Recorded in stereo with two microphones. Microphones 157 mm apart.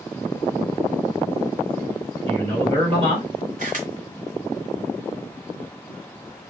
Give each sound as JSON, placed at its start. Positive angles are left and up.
{"t": 2.3, "sound": "a man speaking", "side_deg": -40, "distance_m": 2.0}
{"t": 3.6, "sound": "a camera shutter", "side_deg": -60, "distance_m": 1.1}